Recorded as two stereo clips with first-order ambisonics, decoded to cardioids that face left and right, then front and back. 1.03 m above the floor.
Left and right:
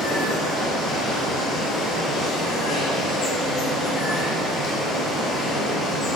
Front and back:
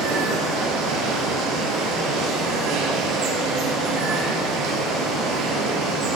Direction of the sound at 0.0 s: 160° left.